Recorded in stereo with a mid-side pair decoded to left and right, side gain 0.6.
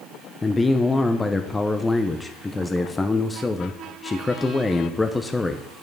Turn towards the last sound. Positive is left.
turn(degrees=15)